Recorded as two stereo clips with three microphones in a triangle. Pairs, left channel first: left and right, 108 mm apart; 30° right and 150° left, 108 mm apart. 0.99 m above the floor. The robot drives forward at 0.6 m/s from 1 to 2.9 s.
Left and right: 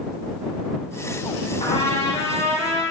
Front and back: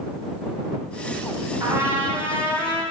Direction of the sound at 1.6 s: 90° left.